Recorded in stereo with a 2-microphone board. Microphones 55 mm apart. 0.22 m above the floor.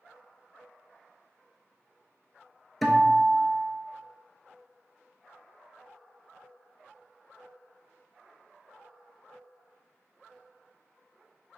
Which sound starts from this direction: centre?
A guitar, at 2.8 s.